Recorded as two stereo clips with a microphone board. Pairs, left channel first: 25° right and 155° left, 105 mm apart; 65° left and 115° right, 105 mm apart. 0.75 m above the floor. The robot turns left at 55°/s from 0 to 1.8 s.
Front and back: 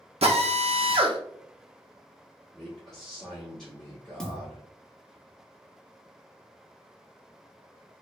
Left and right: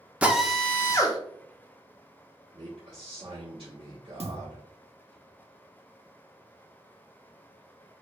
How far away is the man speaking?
About 1.0 m.